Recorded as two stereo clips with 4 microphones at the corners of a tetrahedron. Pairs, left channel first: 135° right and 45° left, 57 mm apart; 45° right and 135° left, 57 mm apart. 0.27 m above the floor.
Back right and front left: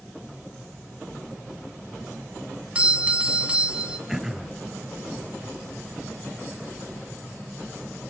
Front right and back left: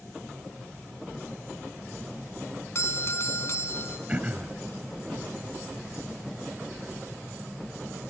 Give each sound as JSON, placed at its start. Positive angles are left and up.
{"t": 2.8, "sound": "a doorbell", "azimuth_deg": -20, "distance_m": 2.5}
{"t": 4.1, "sound": "throat clearing", "azimuth_deg": 120, "distance_m": 1.1}